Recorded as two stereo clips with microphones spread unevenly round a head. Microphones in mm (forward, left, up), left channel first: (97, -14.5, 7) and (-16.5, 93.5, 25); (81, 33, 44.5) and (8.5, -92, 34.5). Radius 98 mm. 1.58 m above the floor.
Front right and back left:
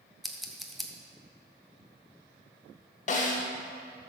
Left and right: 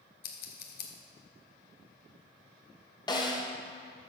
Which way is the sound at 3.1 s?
Straight ahead.